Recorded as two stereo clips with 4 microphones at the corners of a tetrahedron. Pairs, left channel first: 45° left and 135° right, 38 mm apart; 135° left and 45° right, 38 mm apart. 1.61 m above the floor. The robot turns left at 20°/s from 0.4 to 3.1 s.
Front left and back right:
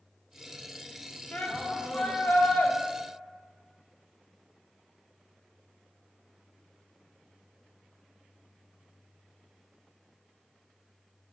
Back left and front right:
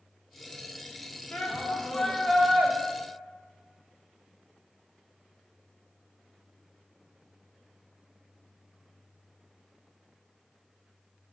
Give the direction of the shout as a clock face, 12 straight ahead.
9 o'clock.